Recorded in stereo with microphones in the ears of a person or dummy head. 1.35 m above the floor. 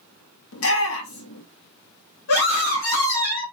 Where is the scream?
60° left (ahead or behind), 2.0 m.